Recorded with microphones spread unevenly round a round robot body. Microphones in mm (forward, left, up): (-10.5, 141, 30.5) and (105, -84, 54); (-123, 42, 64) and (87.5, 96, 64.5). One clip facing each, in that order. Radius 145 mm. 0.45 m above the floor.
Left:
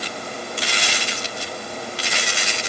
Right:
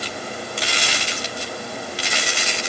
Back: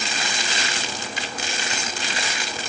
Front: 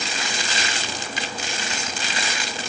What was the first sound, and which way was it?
Only background noise.